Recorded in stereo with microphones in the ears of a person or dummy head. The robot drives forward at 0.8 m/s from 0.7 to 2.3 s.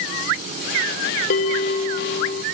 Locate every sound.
1.3 s a bell: 50° left (ahead or behind), 1.9 m; by 2.4 s 35° left (ahead or behind), 2.5 m